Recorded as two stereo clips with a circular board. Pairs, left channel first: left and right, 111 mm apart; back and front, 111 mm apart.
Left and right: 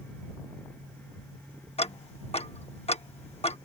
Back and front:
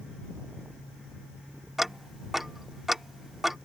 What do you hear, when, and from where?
1.8 s ticking: 90° left